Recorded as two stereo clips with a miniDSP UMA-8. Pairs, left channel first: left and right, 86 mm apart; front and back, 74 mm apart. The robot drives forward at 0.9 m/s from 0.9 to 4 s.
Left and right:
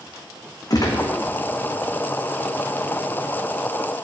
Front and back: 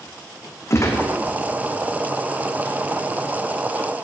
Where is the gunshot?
50° left, 1.3 m; by 1.1 s 55° left, 1.2 m.